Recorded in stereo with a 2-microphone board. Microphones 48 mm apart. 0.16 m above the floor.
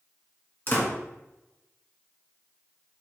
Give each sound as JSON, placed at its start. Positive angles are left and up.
{"t": 0.7, "sound": "a door slam", "side_deg": 45, "distance_m": 1.5}